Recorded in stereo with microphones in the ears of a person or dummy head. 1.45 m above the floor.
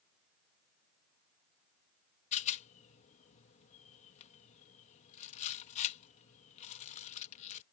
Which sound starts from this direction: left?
A rattle, at 2.3 s.